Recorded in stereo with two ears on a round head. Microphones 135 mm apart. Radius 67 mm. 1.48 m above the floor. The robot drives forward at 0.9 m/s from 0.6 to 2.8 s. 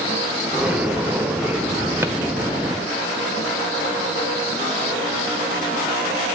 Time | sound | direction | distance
2.0 | a drawer | 15° right (ahead or behind) | 1.3 m